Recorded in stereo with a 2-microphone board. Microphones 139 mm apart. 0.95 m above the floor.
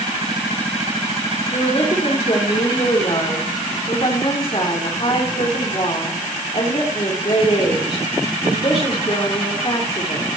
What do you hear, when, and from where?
1.5 s a woman speaking: 45° left (ahead or behind), 3.5 m